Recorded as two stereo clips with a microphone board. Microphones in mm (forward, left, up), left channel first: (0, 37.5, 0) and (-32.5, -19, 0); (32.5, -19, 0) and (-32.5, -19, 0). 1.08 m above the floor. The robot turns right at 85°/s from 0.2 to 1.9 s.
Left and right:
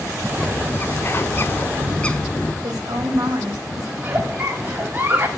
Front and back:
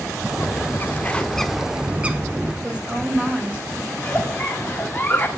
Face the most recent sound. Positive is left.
turn(degrees=-60)